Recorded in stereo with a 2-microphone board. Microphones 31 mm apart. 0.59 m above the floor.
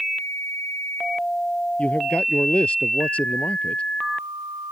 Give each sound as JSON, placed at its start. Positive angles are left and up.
{"t": 1.8, "sound": "a man speaking", "side_deg": 45}